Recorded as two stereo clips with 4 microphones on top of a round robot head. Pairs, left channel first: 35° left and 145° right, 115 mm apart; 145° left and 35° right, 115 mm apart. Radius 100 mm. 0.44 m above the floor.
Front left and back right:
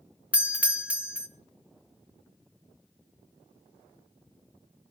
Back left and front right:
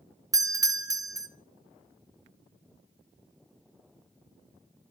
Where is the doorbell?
70° right, 2.0 m.